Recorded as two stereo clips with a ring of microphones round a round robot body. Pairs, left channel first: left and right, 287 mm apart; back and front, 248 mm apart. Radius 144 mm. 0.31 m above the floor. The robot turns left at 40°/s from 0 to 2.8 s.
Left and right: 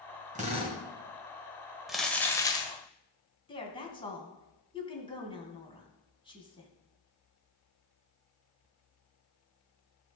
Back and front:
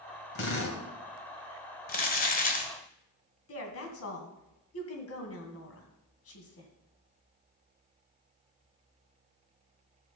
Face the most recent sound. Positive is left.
turn(degrees=160)